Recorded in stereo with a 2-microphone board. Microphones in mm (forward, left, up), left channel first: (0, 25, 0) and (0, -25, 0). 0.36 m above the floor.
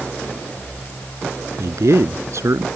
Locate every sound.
1.6 s a man speaking: 75° right (ahead or behind)